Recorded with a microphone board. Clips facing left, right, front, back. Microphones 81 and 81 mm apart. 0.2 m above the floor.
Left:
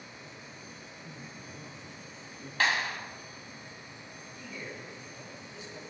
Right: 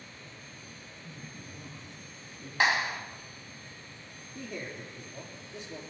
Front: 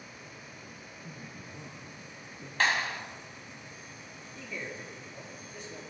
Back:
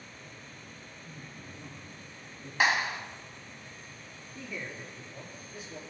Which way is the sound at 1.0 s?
10° left.